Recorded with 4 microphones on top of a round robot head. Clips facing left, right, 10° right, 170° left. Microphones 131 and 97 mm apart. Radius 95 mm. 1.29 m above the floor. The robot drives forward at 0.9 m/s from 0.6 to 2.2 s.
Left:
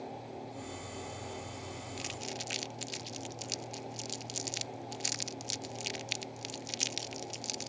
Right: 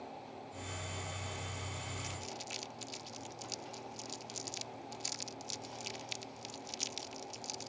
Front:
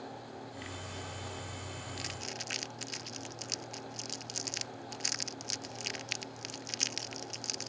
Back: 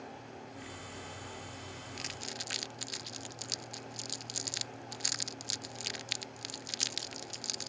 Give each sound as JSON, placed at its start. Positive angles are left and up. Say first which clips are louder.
{"t": 2.0, "sound": "crumpling", "louder": "left 4 dB, front 2 dB", "azimuth_deg": 75}